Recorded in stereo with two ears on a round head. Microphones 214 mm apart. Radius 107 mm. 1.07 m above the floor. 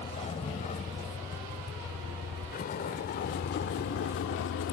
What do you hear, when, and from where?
0.0 s a vehicle: 25° left (ahead or behind); by 4.7 s 60° left (ahead or behind)